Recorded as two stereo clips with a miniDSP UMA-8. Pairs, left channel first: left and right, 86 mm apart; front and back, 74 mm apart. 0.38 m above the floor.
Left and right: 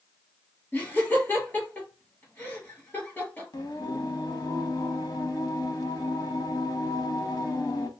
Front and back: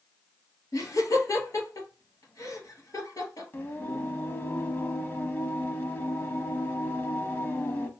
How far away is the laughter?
About 3 m.